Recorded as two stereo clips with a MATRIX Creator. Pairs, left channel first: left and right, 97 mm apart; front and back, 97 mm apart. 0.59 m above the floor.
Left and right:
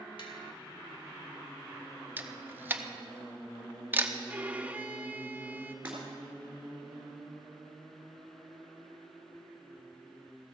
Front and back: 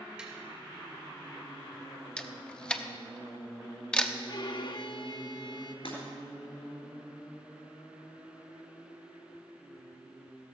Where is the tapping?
100° left, 2.5 m.